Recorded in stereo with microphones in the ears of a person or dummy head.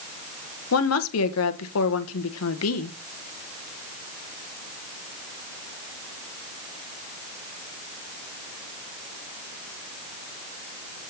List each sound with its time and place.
0.7 s a woman speaking: 75° left (ahead or behind), 1.3 m